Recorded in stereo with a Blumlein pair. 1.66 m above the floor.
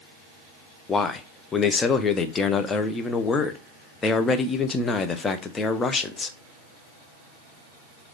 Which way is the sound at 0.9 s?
20° left.